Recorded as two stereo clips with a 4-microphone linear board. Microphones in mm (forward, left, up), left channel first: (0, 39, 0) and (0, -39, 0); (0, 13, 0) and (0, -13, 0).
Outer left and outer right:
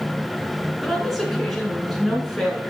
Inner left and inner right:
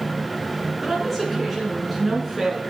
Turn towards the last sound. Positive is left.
turn(degrees=0)  # may be behind; listen again after turning